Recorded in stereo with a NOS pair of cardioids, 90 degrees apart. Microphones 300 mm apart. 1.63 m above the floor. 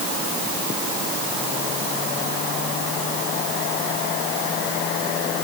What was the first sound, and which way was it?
Only background noise.